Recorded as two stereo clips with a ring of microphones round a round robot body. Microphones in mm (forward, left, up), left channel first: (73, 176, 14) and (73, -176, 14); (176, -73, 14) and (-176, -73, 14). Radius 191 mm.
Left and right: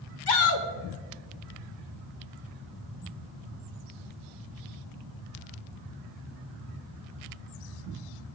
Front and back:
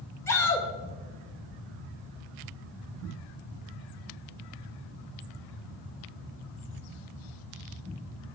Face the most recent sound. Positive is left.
turn(degrees=85)